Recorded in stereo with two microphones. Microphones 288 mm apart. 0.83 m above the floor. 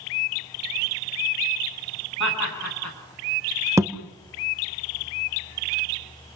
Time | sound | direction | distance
2.2 | laughter | 80° left | 8.5 m
3.8 | a thud | 10° right (ahead or behind) | 1.5 m